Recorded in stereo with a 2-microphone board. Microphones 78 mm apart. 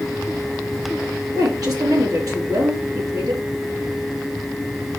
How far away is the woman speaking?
About 5.5 m.